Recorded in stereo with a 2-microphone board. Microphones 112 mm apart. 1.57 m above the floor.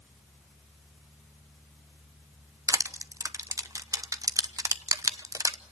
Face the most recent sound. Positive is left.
turn(degrees=-30)  # may be behind; listen again after turning